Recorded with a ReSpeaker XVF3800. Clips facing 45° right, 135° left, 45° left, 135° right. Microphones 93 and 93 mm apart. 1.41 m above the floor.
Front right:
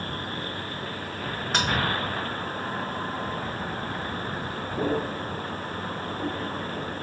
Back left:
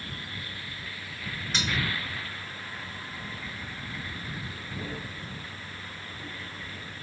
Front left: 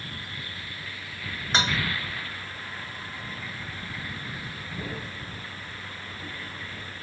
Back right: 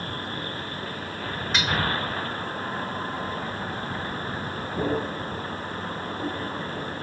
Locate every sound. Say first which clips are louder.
0.0 s a vehicle: front right 8 dB, back right 8 dB; 90° right; by 7.0 s 85° right
1.5 s dishes clattering: front right 6 dB, front left 1 dB; 15° right